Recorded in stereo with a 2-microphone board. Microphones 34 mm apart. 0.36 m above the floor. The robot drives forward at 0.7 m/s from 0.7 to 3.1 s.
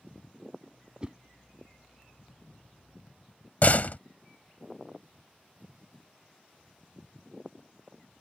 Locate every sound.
1.0 s a whoosh: 25° right (ahead or behind); by 1.1 s 30° right (ahead or behind)
3.6 s a door slam: 50° left (ahead or behind)